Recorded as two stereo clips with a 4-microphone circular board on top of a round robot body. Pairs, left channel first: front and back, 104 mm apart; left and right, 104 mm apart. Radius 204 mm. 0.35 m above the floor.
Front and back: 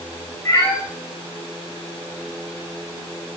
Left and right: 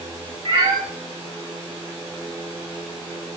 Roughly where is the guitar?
I don't hear a guitar.